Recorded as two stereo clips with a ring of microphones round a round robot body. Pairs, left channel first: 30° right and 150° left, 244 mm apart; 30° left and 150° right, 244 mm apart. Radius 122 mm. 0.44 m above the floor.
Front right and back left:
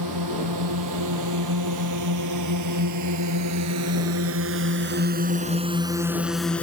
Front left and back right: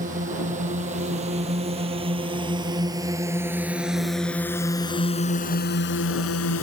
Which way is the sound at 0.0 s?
150° left.